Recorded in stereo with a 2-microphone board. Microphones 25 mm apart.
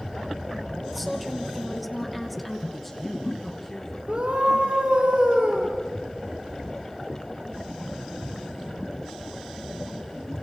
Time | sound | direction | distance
0.9 | a woman speaking | centre (ahead or behind) | 3.5 m
2.7 | a man speaking | 5° left (ahead or behind) | 4.5 m
4.1 | a scream | 65° right (ahead or behind) | 3 m